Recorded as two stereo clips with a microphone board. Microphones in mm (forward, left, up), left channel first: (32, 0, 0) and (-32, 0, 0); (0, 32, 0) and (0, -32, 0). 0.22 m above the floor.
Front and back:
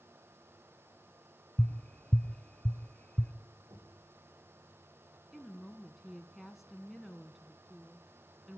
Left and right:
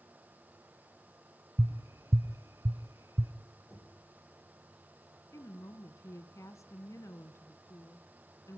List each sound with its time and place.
1.6 s tapping: 65° right, 0.8 m
3.7 s knocking: straight behind, 7.5 m
5.3 s a woman speaking: 95° left, 1.8 m